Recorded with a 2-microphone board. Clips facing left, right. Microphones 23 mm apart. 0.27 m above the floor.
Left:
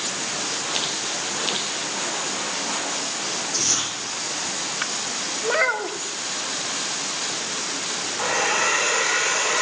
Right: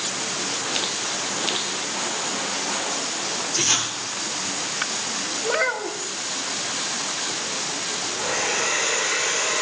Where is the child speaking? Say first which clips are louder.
Left 2 dB; 15° left (ahead or behind), 0.6 m.